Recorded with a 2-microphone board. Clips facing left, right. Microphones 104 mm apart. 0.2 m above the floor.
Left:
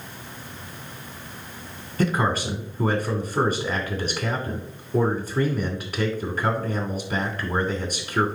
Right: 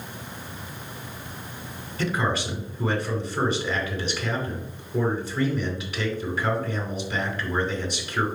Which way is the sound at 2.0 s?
50° left (ahead or behind).